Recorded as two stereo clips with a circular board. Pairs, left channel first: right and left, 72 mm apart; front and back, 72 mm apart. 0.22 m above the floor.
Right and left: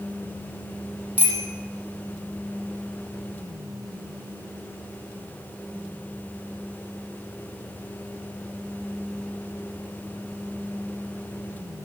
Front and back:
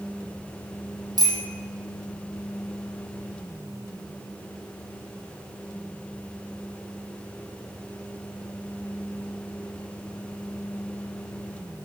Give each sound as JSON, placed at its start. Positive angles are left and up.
{"t": 1.2, "sound": "a bicycle bell", "azimuth_deg": 155, "distance_m": 5.5}